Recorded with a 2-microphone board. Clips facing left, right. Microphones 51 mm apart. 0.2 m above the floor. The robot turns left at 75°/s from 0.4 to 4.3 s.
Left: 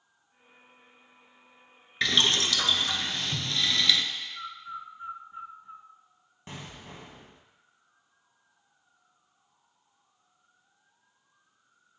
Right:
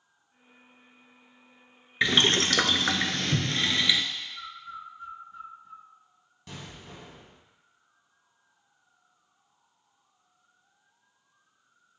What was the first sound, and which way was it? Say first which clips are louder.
Boiling: right 2 dB; 20° right.